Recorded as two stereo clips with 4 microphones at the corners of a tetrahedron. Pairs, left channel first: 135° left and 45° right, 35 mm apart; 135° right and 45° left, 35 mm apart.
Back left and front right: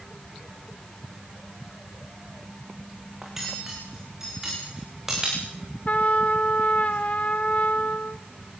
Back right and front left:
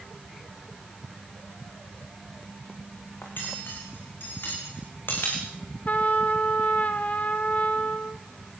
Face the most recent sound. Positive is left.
turn(degrees=180)